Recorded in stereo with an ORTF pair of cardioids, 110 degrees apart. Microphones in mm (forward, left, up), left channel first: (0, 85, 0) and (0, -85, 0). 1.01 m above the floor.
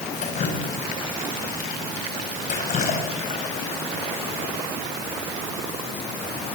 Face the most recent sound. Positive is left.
turn(degrees=45)